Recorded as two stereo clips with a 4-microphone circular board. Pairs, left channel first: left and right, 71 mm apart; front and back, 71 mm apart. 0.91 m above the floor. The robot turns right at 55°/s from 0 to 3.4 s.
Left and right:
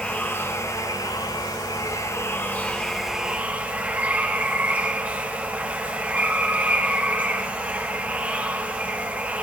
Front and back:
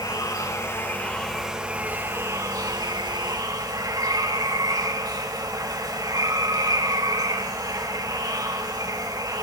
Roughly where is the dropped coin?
No dropped coin in this recording.